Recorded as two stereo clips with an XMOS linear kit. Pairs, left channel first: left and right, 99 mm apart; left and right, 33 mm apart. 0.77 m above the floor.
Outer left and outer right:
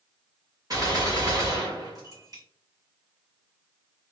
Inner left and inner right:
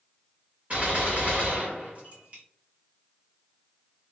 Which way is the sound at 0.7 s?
35° right (ahead or behind).